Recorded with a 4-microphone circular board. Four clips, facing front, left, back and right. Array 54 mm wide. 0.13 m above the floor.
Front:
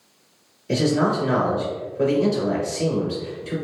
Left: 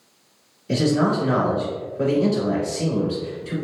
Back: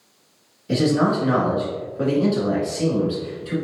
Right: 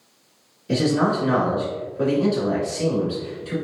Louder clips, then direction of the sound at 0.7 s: Even, back 1 dB; 155° right.